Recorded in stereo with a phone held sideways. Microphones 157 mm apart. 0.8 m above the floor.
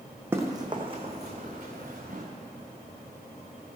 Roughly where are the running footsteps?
Centre.